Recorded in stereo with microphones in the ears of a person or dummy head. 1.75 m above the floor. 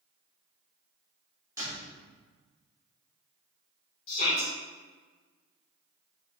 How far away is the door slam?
About 3 m.